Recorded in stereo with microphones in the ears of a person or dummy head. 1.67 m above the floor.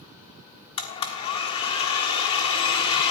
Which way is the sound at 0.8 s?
35° left (ahead or behind).